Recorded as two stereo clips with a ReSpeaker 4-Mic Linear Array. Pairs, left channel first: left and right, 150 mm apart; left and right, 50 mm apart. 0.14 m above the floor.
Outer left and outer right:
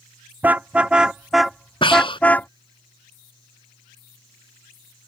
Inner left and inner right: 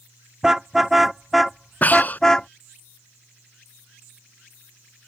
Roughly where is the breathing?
Left.